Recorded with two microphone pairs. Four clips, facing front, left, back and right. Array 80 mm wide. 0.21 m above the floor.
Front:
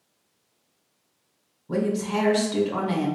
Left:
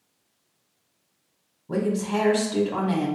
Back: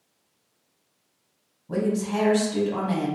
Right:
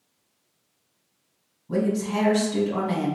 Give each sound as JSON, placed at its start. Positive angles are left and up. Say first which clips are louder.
{"t": 1.7, "sound": "a woman speaking", "louder": "right 1 dB, even", "azimuth_deg": 90, "distance_m": 1.1}